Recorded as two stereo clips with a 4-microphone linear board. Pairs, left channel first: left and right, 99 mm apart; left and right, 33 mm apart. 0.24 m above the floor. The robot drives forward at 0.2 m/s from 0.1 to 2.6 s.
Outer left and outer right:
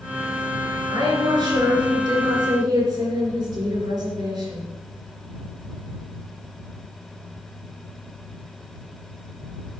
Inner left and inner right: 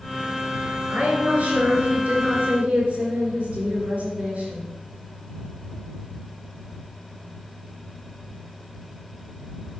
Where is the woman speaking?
55° right (ahead or behind), 3 m; by 4.6 s 50° right (ahead or behind), 3 m.